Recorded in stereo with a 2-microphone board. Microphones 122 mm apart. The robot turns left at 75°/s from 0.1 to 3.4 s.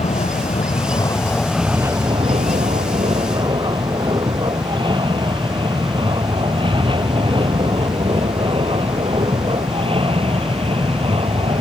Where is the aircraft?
65° left (ahead or behind); by 11.6 s 50° right (ahead or behind).